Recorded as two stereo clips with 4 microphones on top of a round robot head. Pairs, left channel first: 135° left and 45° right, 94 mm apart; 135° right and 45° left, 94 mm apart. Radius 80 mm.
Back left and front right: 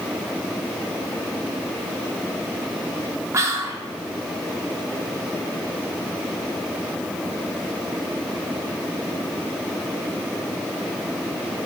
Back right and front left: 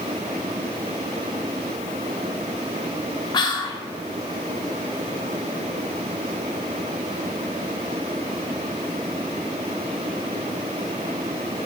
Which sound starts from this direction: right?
Whispering, at 3.3 s.